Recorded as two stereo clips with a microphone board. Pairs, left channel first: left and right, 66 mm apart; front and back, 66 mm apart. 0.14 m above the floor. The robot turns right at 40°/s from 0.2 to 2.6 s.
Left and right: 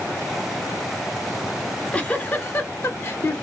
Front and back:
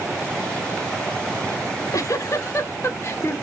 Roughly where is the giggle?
Ahead.